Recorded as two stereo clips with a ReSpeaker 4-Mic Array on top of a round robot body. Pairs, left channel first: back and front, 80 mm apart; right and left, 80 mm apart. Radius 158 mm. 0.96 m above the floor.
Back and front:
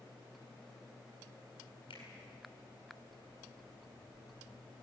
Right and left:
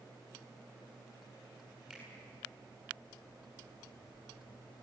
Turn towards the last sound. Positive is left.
turn(degrees=170)